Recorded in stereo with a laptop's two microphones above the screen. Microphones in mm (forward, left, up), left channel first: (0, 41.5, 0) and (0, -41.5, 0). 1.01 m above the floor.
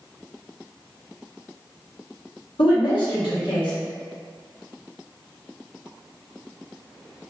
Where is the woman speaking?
80° left, 1.4 m.